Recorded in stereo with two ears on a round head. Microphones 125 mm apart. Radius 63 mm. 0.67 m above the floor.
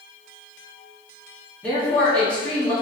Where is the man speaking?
10° left (ahead or behind), 1.3 m.